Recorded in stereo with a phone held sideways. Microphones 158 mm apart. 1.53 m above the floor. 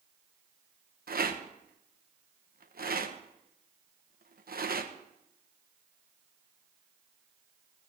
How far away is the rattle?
About 1.1 m.